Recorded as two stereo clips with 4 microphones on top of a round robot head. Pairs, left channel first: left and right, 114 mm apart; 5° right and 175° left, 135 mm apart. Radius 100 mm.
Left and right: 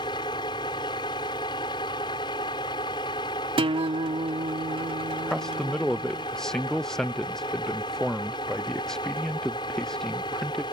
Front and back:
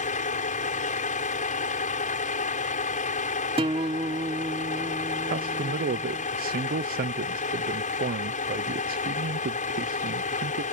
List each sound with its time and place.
0.0 s a vehicle: 25° left
3.6 s a guitar: 125° right
5.3 s a man speaking: 175° left